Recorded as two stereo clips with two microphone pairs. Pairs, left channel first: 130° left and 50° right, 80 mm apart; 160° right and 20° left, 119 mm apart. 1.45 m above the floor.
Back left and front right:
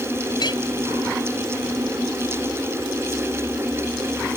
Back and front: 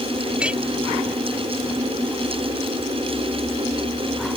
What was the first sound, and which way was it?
A clink, 100° left.